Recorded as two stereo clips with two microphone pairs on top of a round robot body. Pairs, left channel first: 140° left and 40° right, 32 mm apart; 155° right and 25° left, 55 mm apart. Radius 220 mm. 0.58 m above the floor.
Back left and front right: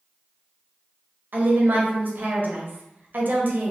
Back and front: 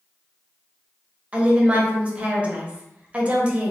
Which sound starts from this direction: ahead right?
A woman speaking, at 1.3 s.